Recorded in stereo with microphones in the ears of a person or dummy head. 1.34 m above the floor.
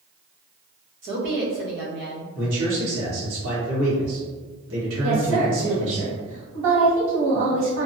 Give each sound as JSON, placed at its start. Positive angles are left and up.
{"t": 1.0, "sound": "a woman speaking", "side_deg": -55, "distance_m": 1.0}
{"t": 2.4, "sound": "a man speaking", "side_deg": -85, "distance_m": 1.7}
{"t": 5.0, "sound": "a woman speaking", "side_deg": -75, "distance_m": 1.8}